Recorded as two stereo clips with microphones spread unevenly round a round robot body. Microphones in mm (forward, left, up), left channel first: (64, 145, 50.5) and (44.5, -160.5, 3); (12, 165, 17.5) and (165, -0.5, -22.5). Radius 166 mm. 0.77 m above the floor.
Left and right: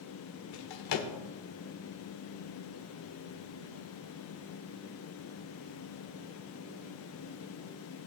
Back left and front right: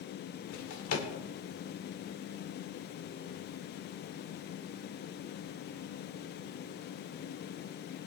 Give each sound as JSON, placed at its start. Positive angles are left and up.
{"t": 0.5, "sound": "a drawer", "azimuth_deg": 120, "distance_m": 1.6}